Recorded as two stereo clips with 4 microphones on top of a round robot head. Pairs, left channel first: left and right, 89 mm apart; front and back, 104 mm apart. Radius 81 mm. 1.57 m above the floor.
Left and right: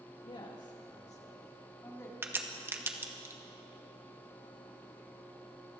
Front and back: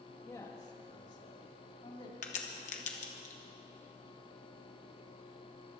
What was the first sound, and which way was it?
A man speaking, 60° left.